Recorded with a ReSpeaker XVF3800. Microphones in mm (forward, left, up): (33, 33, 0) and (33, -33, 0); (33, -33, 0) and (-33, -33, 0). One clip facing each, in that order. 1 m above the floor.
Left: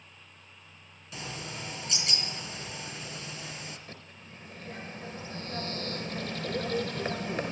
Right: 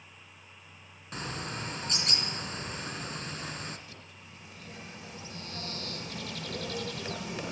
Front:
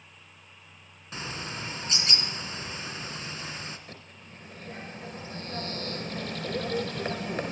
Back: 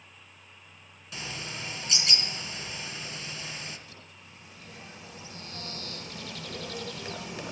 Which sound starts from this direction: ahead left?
A bird, at 3.9 s.